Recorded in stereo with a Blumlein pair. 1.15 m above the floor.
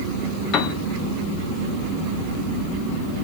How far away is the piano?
About 1.3 m.